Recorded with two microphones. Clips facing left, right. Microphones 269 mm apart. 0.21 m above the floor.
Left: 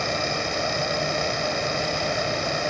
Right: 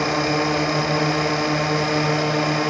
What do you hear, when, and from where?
0.0 s a drone: 85° right